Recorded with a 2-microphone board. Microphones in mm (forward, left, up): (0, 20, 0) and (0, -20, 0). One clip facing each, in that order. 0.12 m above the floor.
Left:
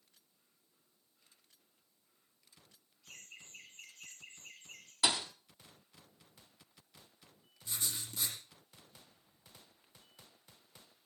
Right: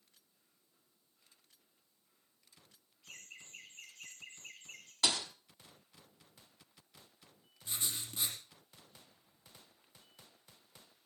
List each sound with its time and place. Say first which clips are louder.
3.0 s laughter: right 1 dB; 50° right (ahead or behind), 8.5 m
5.0 s a thud: left 1 dB; 10° left (ahead or behind), 1.7 m
7.7 s writing: right 1 dB; 35° right (ahead or behind), 4.5 m